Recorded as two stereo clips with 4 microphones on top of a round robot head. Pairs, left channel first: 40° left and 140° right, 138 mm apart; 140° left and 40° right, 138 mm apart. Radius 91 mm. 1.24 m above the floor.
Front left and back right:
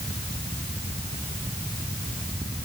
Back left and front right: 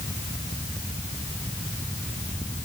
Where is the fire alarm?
No fire alarm in this recording.